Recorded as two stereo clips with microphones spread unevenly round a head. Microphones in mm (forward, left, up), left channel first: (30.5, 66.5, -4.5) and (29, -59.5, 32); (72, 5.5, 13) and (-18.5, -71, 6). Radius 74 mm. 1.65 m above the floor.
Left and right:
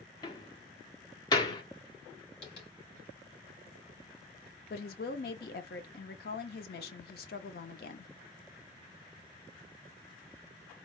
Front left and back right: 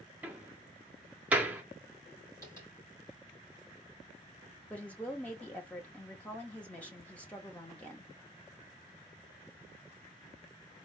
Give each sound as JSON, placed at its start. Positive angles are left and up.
{"t": 0.2, "sound": "a door slam", "azimuth_deg": 150, "distance_m": 0.7}
{"t": 2.4, "sound": "tapping", "azimuth_deg": 110, "distance_m": 2.5}
{"t": 4.7, "sound": "a woman speaking", "azimuth_deg": 120, "distance_m": 0.7}